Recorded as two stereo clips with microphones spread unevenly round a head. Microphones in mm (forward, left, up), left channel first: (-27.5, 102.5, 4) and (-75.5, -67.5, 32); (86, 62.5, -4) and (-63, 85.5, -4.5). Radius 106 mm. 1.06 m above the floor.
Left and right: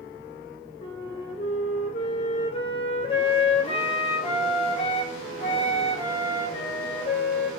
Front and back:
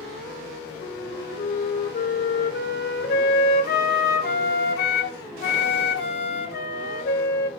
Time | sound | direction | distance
0.8 | a flute | 5° left | 0.6 m